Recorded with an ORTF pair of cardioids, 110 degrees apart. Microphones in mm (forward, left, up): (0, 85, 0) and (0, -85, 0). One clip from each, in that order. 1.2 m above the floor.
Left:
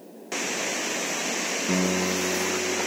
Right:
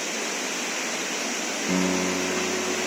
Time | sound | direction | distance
1.7 | a piano | 5° right | 0.7 m